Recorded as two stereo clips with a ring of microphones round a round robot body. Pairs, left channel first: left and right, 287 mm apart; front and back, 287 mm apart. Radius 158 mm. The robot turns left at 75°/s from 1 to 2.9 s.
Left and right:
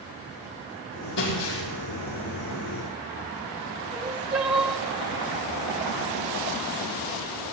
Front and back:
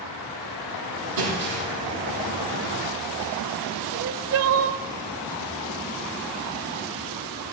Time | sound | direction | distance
1.2 | breaking glass | 150° left | 10 m
3.9 | crying | 175° right | 1.8 m